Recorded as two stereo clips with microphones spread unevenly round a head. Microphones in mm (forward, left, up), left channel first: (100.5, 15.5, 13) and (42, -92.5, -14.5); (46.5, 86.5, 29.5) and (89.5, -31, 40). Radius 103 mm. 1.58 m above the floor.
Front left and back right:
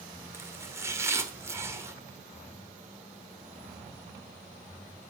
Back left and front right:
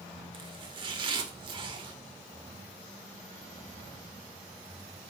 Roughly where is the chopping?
Ahead right.